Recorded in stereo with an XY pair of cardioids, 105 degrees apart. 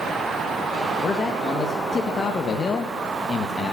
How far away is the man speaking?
About 1.4 m.